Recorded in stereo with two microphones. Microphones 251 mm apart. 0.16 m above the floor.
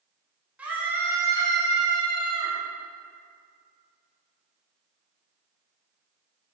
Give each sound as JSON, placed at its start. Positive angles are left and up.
{"t": 0.6, "sound": "a scream", "side_deg": -5, "distance_m": 1.7}